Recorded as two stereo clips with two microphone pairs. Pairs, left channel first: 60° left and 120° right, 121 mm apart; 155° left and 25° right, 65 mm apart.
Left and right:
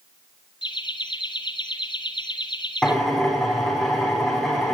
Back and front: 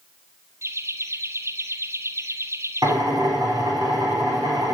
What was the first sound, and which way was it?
Laughter, 15° left.